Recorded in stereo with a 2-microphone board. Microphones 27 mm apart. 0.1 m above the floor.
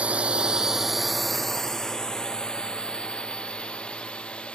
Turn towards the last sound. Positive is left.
turn(degrees=40)  # may be behind; listen again after turning